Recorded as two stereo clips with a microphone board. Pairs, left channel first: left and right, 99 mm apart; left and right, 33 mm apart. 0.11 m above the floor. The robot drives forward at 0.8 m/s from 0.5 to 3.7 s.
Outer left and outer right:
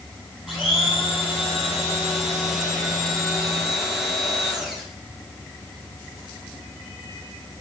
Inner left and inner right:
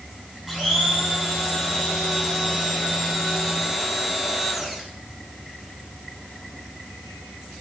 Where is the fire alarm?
I don't hear a fire alarm.